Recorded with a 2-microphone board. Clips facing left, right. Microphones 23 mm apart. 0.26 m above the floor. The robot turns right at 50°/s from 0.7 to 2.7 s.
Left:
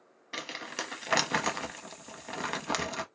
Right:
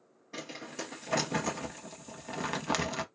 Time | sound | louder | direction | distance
0.3 | crumpling | left 4 dB | 60° left (ahead or behind) | 0.7 m